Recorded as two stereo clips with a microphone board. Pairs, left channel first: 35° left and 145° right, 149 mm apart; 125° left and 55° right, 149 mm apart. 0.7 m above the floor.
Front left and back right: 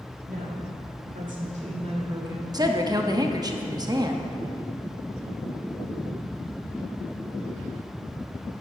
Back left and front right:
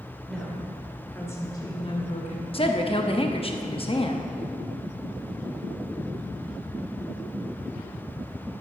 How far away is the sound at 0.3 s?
About 3 m.